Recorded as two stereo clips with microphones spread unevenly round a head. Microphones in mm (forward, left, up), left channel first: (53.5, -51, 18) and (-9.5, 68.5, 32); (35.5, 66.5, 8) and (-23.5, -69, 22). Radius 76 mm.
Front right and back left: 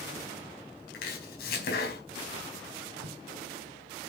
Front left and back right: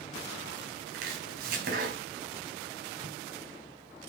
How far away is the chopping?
About 4.5 m.